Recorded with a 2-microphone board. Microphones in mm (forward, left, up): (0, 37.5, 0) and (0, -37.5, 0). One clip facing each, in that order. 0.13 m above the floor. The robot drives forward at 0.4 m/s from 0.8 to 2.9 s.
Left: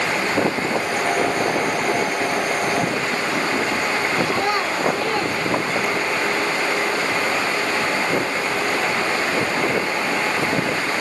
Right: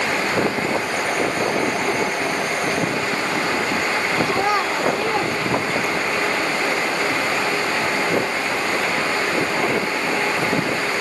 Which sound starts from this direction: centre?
A child speaking, at 4.3 s.